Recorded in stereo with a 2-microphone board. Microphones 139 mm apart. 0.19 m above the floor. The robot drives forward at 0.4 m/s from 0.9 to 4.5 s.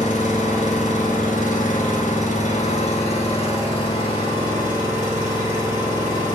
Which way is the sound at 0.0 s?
65° left (ahead or behind).